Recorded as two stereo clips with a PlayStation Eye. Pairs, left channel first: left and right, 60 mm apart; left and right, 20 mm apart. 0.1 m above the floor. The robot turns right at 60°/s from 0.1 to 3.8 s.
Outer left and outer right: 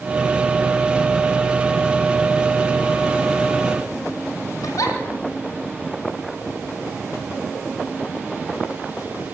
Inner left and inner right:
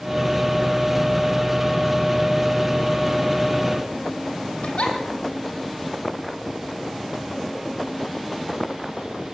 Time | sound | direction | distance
4.6 | a giggle | 65° left (ahead or behind) | 3.5 m